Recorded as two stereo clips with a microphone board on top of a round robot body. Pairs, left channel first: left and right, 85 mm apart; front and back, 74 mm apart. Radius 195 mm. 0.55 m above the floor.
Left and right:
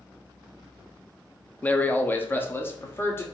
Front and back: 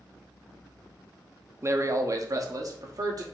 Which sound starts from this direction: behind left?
A man speaking, at 1.6 s.